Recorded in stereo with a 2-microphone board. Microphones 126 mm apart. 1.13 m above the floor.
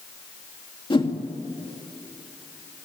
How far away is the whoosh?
About 2 m.